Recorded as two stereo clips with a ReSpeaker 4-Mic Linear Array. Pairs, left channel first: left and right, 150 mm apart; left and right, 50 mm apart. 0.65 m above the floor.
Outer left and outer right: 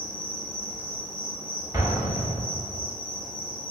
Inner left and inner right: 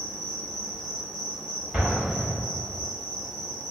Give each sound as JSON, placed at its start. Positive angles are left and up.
{"t": 0.0, "sound": "an insect", "side_deg": -10, "distance_m": 1.6}
{"t": 1.7, "sound": "an explosion", "side_deg": -20, "distance_m": 0.8}